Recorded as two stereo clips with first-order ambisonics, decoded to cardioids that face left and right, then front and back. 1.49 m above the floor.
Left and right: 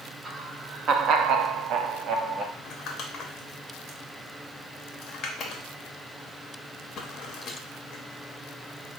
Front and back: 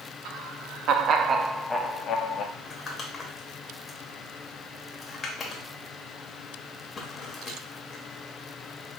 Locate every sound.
0.2 s laughter: 160° right, 0.9 m; by 2.5 s 40° right, 0.7 m
2.6 s crumpling: 55° left, 1.0 m